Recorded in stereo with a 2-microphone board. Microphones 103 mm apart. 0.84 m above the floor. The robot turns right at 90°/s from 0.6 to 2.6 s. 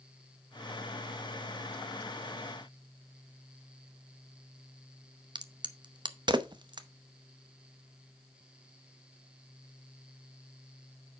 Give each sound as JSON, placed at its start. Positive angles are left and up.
{"t": 5.3, "sound": "a crack", "side_deg": -45, "distance_m": 0.7}